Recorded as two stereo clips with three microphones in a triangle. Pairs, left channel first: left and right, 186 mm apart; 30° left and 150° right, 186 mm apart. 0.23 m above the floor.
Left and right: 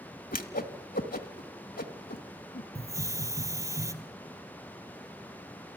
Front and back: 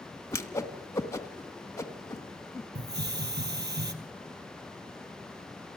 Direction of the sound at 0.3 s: 100° left.